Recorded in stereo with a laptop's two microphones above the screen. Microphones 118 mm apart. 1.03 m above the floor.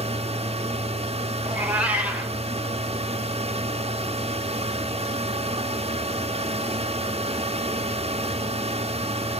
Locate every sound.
0.0 s a fan: 55° right (ahead or behind), 0.9 m
1.4 s a cat meowing: 10° right (ahead or behind), 1.5 m